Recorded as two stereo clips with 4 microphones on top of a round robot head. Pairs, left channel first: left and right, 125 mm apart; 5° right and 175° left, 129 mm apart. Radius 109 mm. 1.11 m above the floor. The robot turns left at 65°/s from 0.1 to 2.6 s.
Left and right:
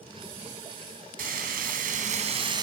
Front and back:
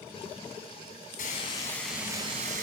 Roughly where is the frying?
Ahead right.